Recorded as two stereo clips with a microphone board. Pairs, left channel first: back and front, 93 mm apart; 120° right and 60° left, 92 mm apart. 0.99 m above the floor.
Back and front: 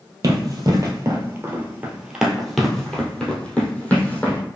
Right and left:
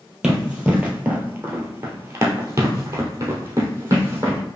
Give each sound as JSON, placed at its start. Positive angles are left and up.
{"t": 0.2, "sound": "running footsteps", "azimuth_deg": -15, "distance_m": 1.3}